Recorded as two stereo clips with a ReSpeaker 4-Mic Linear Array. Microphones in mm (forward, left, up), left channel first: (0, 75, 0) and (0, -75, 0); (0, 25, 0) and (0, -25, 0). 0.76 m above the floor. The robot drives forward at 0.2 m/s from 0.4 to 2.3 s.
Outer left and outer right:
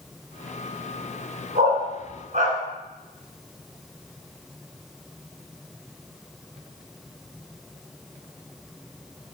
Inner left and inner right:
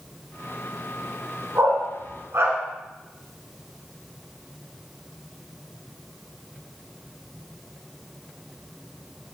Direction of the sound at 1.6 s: 55° right (ahead or behind).